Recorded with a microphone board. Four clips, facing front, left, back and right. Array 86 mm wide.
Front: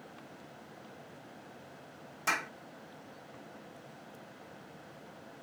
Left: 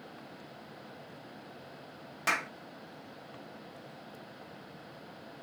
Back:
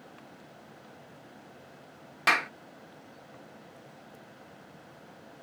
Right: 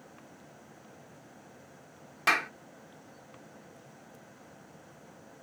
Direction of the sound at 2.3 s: 160° right.